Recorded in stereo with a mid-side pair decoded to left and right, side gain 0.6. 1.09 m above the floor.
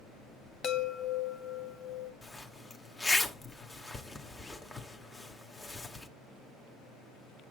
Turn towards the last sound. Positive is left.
turn(degrees=20)